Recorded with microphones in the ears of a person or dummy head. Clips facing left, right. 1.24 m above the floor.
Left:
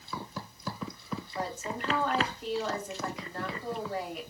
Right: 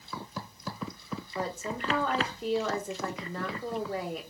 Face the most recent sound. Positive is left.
turn(degrees=-70)  # may be behind; listen again after turning